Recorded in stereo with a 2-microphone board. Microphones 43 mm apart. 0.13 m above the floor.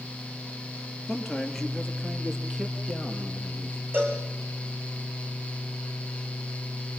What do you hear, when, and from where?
1.1 s a man speaking: 15° left (ahead or behind), 2.5 m; by 3.8 s 10° right (ahead or behind), 4.5 m
3.9 s a cowbell: 50° right (ahead or behind), 3.5 m